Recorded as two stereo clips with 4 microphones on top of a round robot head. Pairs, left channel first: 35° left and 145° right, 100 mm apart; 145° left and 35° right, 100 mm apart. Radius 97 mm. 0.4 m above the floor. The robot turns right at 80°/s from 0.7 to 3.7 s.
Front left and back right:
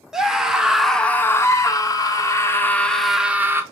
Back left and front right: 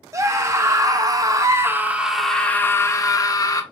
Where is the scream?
65° right, 1.1 m; by 3.6 s 170° left, 1.1 m.